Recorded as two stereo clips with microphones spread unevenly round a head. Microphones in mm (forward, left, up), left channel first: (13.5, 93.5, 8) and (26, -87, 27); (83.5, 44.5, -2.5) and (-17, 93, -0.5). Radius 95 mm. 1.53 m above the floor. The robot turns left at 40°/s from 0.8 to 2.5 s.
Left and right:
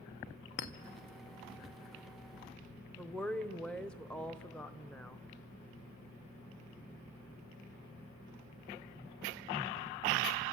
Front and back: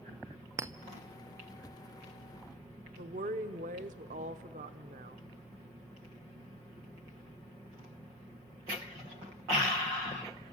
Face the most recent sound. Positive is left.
turn(degrees=180)